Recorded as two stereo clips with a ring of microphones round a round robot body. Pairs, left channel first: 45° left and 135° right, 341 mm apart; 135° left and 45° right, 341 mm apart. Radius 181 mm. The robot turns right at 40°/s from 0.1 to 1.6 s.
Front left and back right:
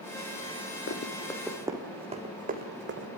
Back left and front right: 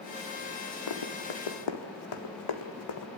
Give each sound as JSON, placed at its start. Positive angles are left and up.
{"t": 0.9, "sound": "running footsteps", "azimuth_deg": 105, "distance_m": 2.0}